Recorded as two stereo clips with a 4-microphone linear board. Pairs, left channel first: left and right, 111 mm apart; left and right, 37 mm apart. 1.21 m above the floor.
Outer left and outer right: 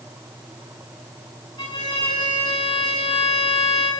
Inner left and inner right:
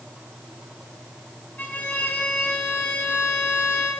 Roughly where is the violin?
Left.